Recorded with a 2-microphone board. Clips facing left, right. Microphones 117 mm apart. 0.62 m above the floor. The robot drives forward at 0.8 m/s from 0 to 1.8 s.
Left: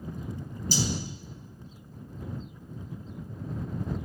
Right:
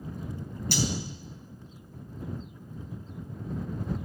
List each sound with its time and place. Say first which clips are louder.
0.7 s cutlery clinking: right 1 dB; 65° right (ahead or behind), 3.5 m; by 0.9 s 60° right (ahead or behind), 3.5 m